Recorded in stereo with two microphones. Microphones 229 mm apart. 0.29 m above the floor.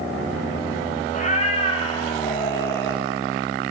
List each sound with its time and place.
1.1 s a cat meowing: 30° left (ahead or behind), 1.9 m; by 3.0 s 10° left (ahead or behind), 2.5 m